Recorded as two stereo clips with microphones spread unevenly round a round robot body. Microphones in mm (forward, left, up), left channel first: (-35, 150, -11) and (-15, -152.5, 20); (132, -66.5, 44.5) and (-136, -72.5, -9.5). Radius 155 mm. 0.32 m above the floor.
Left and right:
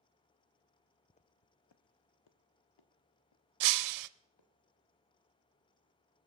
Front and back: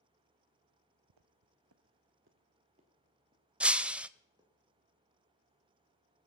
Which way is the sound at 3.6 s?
100° right.